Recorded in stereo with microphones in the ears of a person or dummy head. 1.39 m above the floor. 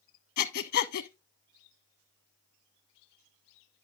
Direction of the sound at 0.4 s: 50° left (ahead or behind).